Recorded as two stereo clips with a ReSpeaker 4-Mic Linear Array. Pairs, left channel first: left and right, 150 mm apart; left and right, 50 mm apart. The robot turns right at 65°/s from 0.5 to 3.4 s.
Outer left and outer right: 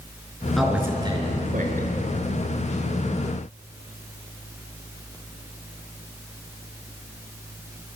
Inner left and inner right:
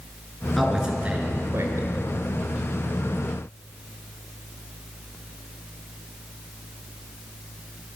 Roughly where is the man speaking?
Behind.